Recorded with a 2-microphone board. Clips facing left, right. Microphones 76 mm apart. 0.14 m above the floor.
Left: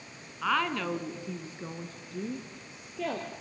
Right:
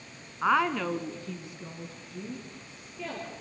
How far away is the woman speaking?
About 1.6 m.